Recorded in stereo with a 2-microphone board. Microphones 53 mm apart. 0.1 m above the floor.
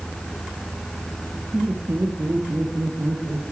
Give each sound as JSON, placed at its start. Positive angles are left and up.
{"t": 1.5, "sound": "laughter", "side_deg": -35, "distance_m": 2.5}